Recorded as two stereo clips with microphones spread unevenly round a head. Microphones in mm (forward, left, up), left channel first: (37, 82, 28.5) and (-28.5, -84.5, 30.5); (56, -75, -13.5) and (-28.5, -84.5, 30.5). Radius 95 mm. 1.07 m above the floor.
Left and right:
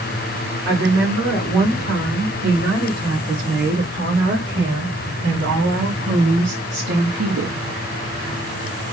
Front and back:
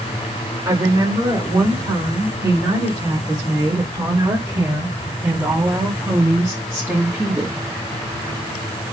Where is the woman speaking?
135° right, 6 m; by 7.6 s 90° right, 1.9 m.